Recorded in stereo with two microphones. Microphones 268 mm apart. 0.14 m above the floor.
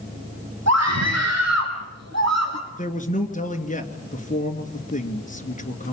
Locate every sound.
0.7 s a scream: 75° right (ahead or behind), 6 m; by 2.6 s 70° right (ahead or behind), 5.5 m
2.7 s a man speaking: 30° left (ahead or behind), 2.5 m